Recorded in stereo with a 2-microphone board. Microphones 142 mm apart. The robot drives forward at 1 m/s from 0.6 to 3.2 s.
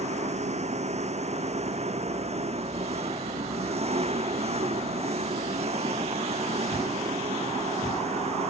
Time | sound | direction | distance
0.0 | an engine running | 50° right (ahead or behind) | ?